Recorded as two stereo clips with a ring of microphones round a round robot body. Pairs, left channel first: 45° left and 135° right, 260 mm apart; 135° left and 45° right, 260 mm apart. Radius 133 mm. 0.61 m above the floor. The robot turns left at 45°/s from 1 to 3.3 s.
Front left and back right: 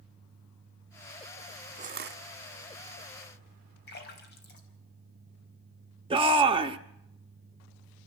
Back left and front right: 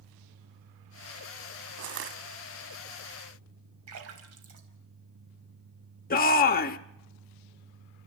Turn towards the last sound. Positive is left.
turn(degrees=165)